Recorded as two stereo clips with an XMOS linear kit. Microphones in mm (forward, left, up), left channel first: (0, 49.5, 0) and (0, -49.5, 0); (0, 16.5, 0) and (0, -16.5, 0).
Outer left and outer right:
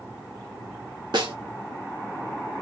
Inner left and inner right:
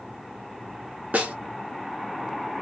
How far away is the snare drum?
About 1.0 m.